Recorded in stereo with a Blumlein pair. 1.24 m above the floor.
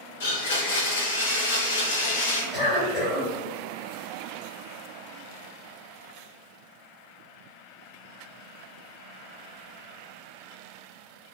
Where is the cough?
25° left, 1.3 m.